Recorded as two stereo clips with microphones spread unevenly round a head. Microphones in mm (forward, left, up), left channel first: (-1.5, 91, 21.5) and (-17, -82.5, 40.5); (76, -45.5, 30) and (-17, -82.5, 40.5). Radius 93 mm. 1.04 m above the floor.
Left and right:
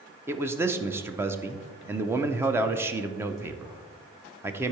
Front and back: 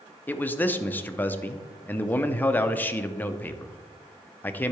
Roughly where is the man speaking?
Ahead.